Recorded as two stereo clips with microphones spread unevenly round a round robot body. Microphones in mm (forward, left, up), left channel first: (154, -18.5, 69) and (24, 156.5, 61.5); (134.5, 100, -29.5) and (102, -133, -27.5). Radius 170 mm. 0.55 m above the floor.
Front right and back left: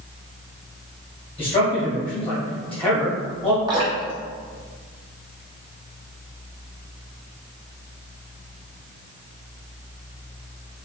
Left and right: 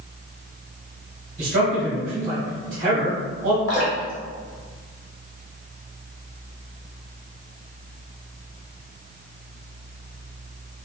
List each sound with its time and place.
1.4 s a man speaking: 100° right, 1.2 m
3.7 s dripping: 60° left, 1.8 m